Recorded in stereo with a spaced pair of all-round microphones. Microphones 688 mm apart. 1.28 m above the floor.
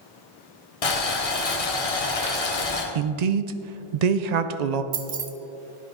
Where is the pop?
I don't hear a pop.